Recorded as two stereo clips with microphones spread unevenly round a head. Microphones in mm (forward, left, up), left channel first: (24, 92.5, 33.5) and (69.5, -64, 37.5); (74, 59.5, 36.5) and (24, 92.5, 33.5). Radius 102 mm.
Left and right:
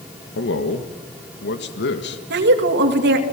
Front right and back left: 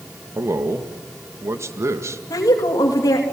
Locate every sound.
0.3 s a man speaking: 110° left, 1.9 m
2.3 s a woman speaking: 70° right, 2.5 m